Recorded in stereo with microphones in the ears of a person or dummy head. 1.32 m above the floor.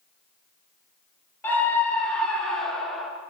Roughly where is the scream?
Centre.